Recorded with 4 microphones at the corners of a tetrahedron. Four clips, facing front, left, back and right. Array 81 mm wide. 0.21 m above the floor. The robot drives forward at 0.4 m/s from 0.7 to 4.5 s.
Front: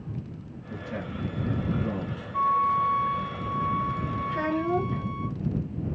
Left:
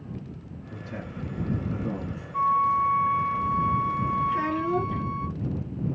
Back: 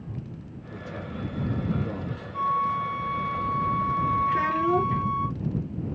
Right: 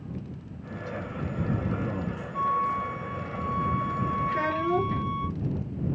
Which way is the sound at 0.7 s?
5° left.